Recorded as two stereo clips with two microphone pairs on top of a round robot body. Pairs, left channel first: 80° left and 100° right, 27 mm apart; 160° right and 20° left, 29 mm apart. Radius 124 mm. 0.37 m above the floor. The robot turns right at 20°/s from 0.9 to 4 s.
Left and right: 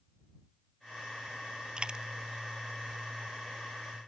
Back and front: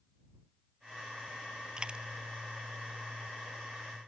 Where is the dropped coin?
45° right; by 2.0 s 40° right.